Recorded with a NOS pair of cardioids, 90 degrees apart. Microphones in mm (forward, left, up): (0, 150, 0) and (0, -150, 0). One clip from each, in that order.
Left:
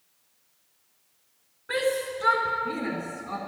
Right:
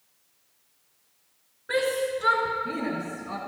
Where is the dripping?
I don't hear dripping.